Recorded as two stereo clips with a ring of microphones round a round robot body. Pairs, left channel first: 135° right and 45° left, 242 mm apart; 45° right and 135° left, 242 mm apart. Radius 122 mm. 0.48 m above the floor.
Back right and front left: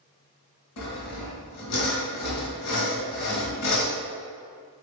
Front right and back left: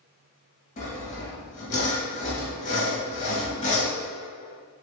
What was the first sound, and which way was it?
Sawing, 110° right.